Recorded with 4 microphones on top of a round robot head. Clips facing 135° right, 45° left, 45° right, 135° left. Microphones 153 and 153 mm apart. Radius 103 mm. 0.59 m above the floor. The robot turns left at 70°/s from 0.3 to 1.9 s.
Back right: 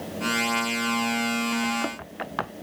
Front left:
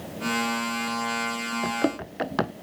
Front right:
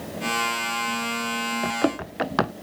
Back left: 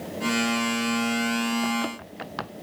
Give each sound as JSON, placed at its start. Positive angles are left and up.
{"t": 1.6, "sound": "running footsteps", "azimuth_deg": 10}